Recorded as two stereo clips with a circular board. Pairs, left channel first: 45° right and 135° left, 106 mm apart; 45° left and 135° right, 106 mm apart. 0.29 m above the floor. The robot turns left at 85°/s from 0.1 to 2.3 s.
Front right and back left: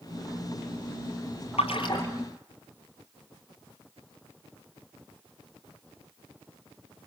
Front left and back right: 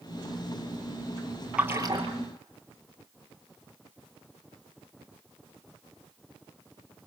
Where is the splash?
55° right, 2.5 m; by 2.1 s 100° right, 2.5 m.